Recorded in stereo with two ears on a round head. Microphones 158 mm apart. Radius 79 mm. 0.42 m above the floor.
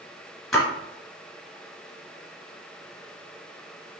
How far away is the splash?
About 1.3 m.